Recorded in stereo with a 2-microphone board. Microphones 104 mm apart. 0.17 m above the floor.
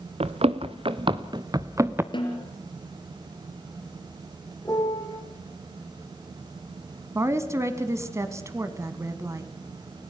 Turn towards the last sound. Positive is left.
turn(degrees=-30)  # may be behind; listen again after turning